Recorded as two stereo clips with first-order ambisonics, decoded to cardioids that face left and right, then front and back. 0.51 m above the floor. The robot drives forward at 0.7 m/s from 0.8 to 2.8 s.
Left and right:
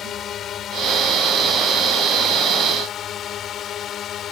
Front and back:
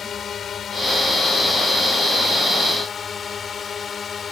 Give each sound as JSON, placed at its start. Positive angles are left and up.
{"t": 0.0, "sound": "a drone", "azimuth_deg": 50}